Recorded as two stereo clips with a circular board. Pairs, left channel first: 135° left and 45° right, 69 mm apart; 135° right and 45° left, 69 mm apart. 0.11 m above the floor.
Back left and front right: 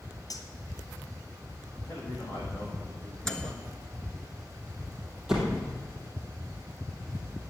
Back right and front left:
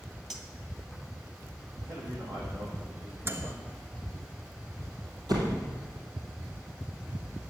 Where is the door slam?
40° left, 2.5 m.